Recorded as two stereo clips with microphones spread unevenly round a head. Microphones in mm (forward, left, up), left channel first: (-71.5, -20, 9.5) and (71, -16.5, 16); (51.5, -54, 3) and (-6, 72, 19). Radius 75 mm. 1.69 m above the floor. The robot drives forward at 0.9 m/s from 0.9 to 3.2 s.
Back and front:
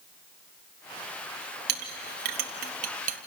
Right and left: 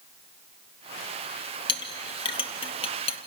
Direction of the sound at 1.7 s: 5° right.